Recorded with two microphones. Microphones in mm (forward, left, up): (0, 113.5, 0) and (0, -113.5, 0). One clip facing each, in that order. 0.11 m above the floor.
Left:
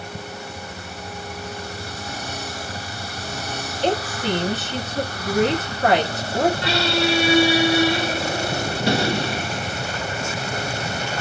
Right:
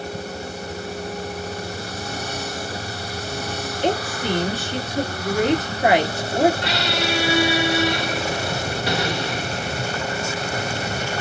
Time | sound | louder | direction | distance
3.8 | a woman speaking | left 1 dB | 15° right (ahead or behind) | 1.7 m
6.6 | a squeak | left 3 dB | 30° left (ahead or behind) | 1.0 m